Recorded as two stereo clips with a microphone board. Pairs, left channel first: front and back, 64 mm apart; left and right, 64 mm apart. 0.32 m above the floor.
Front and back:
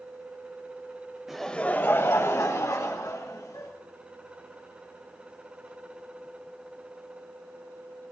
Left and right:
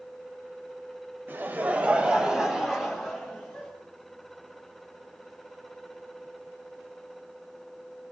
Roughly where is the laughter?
Right.